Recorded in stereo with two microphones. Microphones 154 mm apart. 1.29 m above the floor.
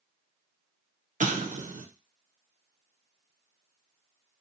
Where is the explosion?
55° right (ahead or behind), 0.5 m.